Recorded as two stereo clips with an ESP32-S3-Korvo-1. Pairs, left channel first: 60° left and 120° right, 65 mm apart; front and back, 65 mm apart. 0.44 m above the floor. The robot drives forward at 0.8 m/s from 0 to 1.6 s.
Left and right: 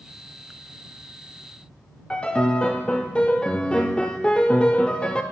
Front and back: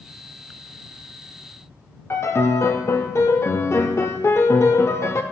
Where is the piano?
10° right, 0.5 m.